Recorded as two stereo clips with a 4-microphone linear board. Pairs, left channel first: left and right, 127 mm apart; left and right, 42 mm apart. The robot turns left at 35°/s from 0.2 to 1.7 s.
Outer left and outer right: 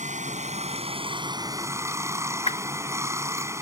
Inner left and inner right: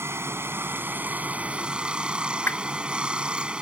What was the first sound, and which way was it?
Running water, 105° right.